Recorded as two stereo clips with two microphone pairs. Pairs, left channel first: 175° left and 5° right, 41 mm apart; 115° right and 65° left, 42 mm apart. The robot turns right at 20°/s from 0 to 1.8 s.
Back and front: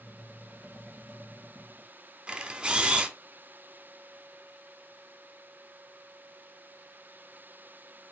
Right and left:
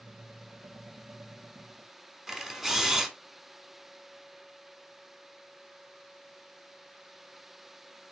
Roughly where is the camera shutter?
Ahead.